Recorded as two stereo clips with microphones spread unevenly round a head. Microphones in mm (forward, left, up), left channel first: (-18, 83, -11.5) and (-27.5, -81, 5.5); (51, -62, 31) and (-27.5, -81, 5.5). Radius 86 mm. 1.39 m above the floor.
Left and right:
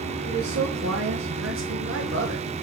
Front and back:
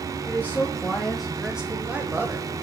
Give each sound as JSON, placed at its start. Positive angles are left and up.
{"t": 0.3, "sound": "a man speaking", "azimuth_deg": -55, "distance_m": 1.3}